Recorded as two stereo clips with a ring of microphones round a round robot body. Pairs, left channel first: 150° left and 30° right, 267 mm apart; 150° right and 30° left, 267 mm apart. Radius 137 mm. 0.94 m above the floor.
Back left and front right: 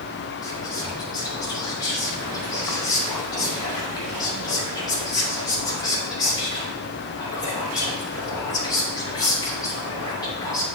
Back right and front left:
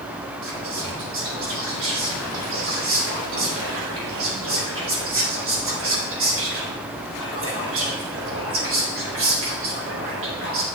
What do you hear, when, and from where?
0.4 s whispering: 75° left, 2.5 m